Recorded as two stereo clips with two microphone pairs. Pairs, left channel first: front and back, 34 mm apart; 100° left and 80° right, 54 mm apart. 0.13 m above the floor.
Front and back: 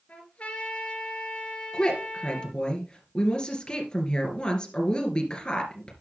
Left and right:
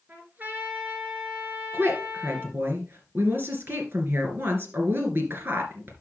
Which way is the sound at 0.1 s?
30° right.